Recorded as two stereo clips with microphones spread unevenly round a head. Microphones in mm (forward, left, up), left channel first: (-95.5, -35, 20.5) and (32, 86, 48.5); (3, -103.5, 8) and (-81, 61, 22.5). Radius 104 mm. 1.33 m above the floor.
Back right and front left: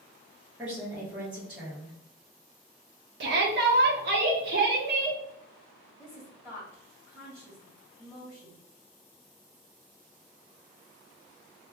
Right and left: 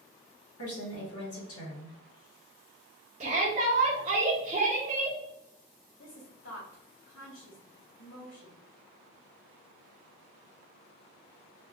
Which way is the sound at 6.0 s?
50° right.